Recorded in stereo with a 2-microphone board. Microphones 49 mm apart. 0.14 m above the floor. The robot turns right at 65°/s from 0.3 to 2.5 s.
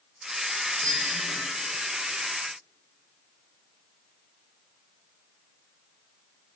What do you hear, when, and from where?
0.8 s a bicycle bell: 110° right, 3.5 m; by 1.4 s 70° right, 3.5 m